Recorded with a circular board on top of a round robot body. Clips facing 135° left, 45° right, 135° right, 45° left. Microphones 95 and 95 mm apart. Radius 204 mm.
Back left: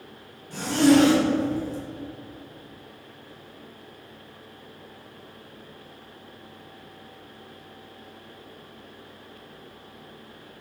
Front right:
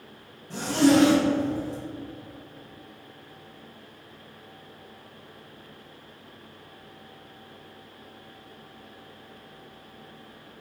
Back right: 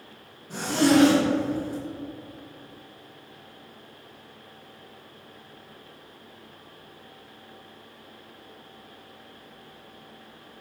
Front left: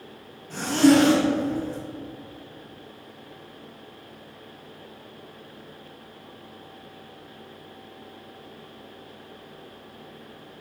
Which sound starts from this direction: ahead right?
A zipper, at 0.5 s.